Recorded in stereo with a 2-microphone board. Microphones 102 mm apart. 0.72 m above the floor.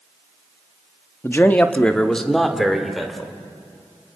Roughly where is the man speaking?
Left.